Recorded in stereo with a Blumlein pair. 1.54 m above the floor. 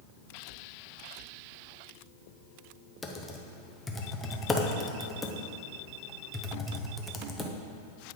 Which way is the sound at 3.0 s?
10° left.